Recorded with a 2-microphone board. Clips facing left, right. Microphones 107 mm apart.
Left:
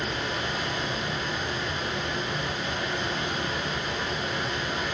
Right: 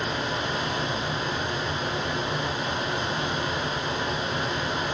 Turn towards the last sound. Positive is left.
turn(degrees=-65)  # may be behind; listen again after turning